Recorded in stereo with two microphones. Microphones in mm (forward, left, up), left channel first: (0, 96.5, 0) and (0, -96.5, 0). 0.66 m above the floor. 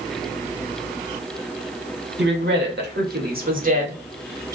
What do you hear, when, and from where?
2.2 s a woman speaking: 70° right (ahead or behind), 1.4 m; by 4.5 s 20° right (ahead or behind), 1.1 m